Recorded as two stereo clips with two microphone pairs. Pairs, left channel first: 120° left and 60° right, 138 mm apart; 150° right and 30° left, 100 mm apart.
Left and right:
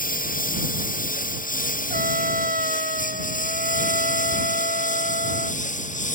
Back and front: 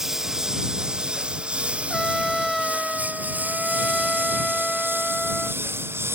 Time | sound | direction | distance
0.0 | a lawn mower | 115° left | ?
1.9 | a trumpet | 60° right | ?